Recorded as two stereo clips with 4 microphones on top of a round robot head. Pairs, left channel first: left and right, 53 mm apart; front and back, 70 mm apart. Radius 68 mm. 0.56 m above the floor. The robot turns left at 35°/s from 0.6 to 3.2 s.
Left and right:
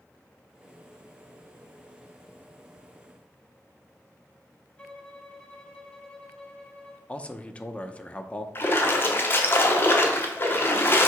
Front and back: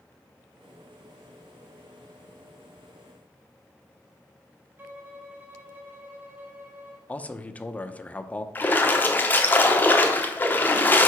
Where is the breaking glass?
No breaking glass in this recording.